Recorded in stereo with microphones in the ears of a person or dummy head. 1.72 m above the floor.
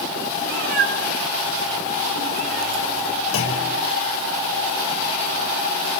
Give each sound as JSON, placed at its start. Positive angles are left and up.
{"t": 0.4, "sound": "a cat meowing", "side_deg": -60, "distance_m": 2.5}
{"t": 3.3, "sound": "a clunk", "side_deg": 85, "distance_m": 7.0}